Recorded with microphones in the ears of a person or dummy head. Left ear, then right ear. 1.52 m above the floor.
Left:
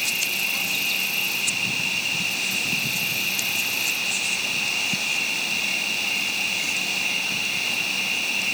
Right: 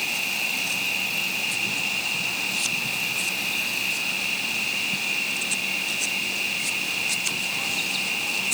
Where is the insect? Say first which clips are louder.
Left 1 dB; 20° left (ahead or behind).